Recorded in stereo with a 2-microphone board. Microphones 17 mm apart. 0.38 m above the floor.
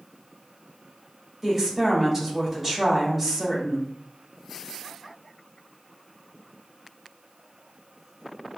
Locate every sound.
1.4 s a woman speaking: 10° right (ahead or behind), 1.4 m